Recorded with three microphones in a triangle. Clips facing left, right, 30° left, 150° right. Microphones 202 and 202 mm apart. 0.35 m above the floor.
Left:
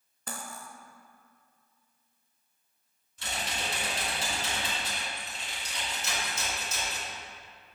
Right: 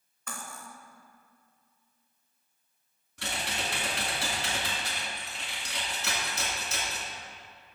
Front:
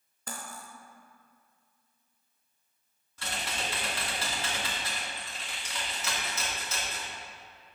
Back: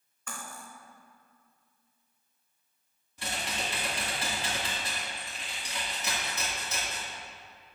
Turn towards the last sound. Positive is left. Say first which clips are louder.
# right 1 dB, back 1 dB
turn(degrees=-75)